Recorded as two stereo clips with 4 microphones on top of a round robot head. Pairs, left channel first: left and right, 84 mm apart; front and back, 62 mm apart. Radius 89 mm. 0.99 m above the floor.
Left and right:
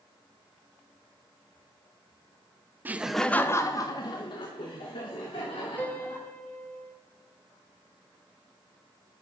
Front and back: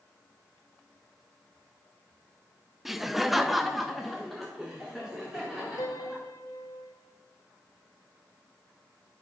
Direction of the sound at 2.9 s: 100° right.